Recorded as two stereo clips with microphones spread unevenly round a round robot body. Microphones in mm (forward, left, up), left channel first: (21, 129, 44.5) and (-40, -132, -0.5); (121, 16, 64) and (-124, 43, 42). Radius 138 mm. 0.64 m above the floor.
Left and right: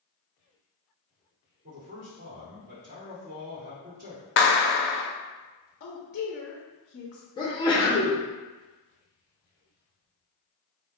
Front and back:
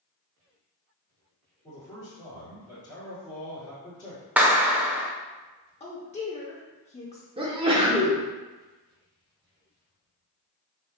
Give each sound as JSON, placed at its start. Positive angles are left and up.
{"t": 1.6, "sound": "a man speaking", "azimuth_deg": -65, "distance_m": 1.8}
{"t": 4.4, "sound": "a clap", "azimuth_deg": 100, "distance_m": 0.6}
{"t": 5.8, "sound": "a woman speaking", "azimuth_deg": 45, "distance_m": 0.5}
{"t": 7.4, "sound": "a sneeze", "azimuth_deg": 150, "distance_m": 0.7}